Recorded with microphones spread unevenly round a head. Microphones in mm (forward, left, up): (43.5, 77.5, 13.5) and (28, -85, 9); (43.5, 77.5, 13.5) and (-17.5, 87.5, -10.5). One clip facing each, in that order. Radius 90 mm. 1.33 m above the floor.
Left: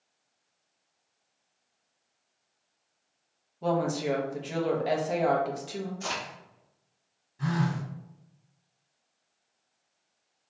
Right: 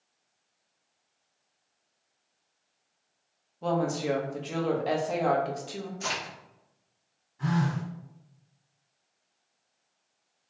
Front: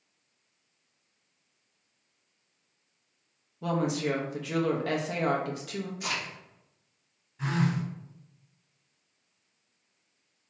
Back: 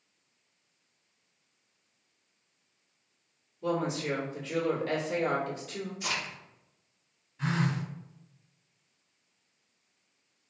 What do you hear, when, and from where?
3.6 s a woman speaking: straight ahead, 0.7 m
6.0 s a crack: 25° right, 1.5 m
7.4 s a phone buzzing: 40° left, 1.4 m